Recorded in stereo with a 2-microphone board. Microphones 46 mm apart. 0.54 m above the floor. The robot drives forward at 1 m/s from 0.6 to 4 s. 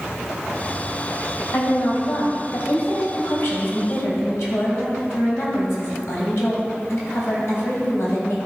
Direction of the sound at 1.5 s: 60° left (ahead or behind).